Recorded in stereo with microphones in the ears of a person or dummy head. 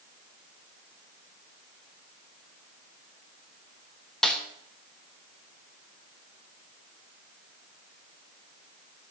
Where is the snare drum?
Centre (ahead or behind), 1.2 m.